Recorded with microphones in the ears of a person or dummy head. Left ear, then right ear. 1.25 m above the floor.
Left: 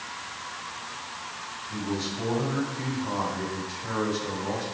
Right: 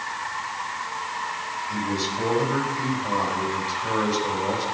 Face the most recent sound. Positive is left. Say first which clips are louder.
# right 4 dB
turn(degrees=-85)